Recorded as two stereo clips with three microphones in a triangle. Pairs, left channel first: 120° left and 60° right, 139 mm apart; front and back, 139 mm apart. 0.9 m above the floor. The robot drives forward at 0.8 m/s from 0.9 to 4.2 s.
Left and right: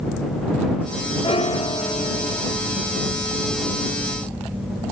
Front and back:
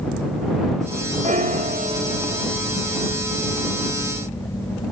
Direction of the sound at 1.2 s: 165° left.